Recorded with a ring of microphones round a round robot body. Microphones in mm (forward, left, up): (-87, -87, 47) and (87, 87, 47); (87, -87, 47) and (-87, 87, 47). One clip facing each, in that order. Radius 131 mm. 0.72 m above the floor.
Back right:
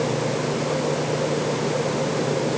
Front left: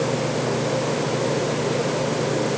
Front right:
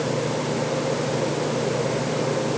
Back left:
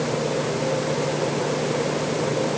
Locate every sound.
Only background noise.